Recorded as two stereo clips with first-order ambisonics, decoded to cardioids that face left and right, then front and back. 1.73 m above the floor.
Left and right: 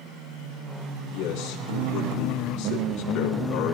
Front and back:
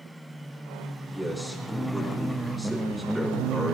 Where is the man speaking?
90° left, 3.5 m.